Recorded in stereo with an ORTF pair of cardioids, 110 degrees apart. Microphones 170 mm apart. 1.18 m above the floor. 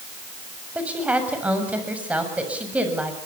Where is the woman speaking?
10° right, 7 m.